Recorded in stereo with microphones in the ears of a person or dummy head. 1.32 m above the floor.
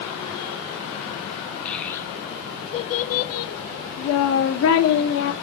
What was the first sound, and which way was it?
A child speaking, 5° left (ahead or behind).